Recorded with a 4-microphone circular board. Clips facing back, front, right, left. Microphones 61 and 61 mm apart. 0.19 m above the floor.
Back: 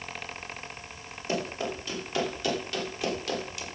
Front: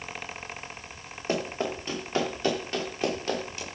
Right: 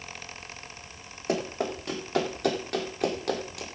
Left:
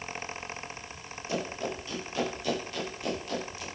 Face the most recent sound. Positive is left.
turn(degrees=-65)